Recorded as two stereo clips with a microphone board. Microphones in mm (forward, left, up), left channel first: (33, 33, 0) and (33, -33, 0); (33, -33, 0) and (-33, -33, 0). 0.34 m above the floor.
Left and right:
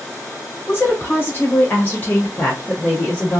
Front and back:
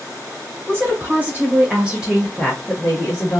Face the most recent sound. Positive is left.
turn(degrees=20)